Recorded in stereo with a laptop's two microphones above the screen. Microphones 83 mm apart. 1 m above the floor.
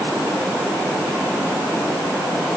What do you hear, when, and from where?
Only background noise.